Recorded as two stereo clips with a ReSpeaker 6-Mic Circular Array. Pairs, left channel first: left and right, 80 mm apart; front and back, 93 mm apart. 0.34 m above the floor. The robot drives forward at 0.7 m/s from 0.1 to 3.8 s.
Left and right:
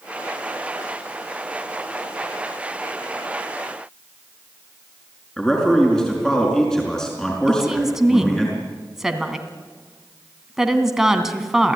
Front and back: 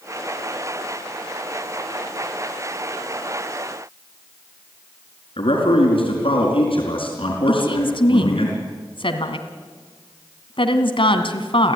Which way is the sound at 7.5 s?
5° right.